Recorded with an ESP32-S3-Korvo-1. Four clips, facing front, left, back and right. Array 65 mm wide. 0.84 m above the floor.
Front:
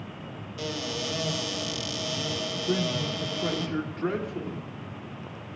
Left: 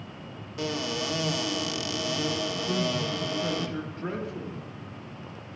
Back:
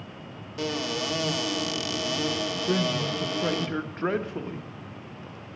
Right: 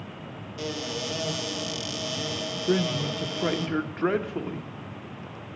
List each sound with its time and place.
0.6 s a cupboard door: 150° left, 1.4 m
2.7 s a man speaking: 120° right, 1.0 m